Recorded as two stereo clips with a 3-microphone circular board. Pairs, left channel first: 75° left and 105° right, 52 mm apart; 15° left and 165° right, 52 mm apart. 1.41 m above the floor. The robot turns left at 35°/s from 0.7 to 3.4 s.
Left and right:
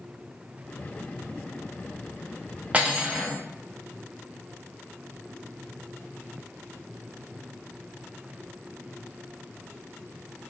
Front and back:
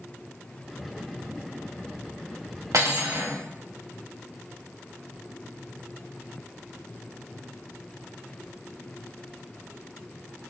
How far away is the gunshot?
No gunshot in this recording.